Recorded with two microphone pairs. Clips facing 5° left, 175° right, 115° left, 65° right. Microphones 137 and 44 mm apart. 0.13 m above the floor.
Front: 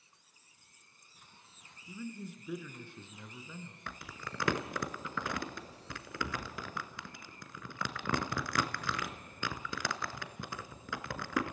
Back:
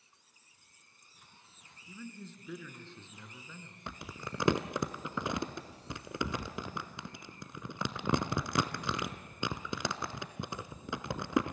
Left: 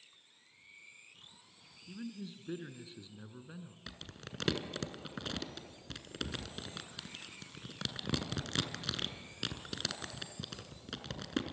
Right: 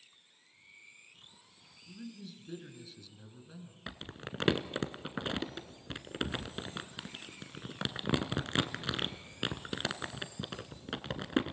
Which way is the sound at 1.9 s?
75° left.